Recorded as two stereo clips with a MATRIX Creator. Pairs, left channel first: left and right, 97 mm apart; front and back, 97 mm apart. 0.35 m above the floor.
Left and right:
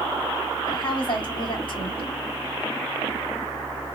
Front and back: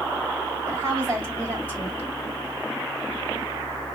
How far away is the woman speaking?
About 2.5 m.